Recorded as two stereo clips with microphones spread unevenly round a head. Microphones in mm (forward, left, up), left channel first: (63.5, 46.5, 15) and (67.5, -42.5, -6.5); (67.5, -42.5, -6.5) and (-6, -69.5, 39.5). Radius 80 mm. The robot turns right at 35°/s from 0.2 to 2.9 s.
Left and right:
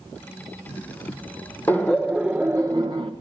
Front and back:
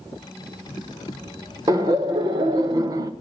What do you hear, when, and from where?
1.7 s laughter: 160° left, 0.7 m; by 3.1 s 155° right, 0.7 m